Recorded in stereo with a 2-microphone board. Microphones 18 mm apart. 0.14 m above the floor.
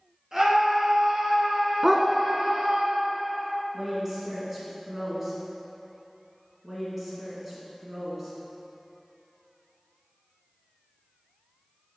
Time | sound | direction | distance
0.3 | a scream | 40° right (ahead or behind) | 1.6 m
1.8 | a dog barking | 20° right (ahead or behind) | 0.5 m
3.7 | a woman speaking | 20° right (ahead or behind) | 1.7 m
6.6 | a woman speaking | 20° right (ahead or behind) | 1.5 m